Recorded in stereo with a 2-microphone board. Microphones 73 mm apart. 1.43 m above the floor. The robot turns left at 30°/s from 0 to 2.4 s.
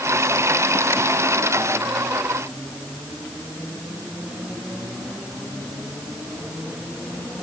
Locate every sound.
Only background noise.